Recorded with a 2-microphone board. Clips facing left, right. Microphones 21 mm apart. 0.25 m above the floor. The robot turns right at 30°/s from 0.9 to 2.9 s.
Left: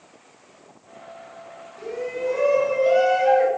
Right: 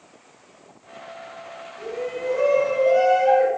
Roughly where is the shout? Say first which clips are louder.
Left 1 dB; left.